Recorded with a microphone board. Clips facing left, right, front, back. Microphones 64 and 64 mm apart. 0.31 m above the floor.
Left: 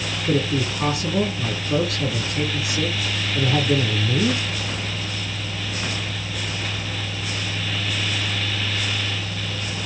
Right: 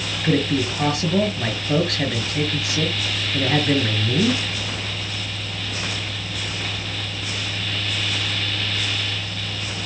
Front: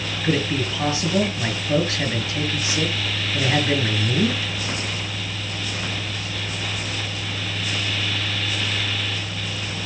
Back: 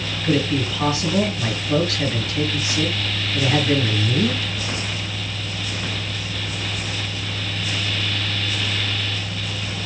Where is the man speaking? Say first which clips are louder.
Right 2 dB, back 2 dB; 70° right, 5 m.